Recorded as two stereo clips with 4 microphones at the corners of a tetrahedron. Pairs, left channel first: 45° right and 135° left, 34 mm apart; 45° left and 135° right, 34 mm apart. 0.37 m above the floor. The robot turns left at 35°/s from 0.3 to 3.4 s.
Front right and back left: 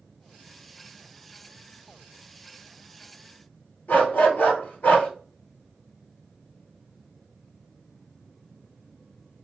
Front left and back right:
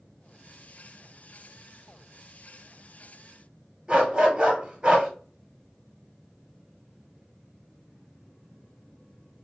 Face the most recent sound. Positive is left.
turn(degrees=-70)